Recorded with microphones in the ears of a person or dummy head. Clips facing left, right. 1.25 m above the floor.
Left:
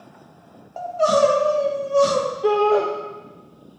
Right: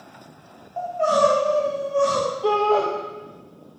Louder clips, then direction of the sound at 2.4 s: Left 3 dB; 20° left (ahead or behind).